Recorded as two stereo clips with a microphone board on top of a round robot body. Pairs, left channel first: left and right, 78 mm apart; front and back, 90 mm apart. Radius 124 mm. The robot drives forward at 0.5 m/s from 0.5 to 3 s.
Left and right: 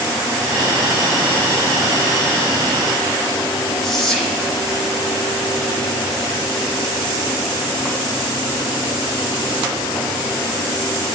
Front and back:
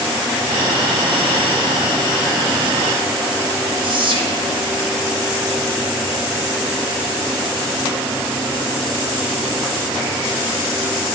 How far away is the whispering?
About 2 m.